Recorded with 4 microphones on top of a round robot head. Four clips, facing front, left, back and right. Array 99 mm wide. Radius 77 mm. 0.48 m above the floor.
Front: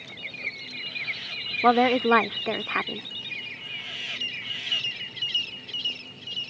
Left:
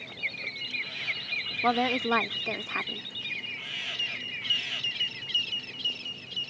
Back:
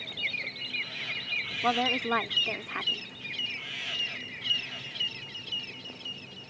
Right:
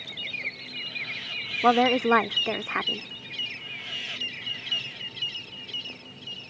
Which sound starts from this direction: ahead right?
A woman speaking, at 1.6 s.